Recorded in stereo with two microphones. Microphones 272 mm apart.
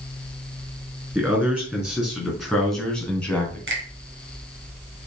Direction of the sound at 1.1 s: 5° right (ahead or behind).